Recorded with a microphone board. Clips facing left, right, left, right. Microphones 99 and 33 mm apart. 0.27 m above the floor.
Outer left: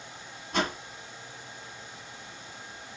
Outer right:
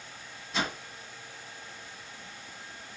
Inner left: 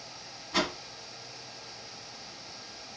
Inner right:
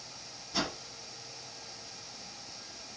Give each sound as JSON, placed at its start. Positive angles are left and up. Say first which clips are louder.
{"t": 0.5, "sound": "a whoosh", "louder": "outer left 4 dB, inner left 5 dB", "side_deg": 60, "distance_m": 1.4}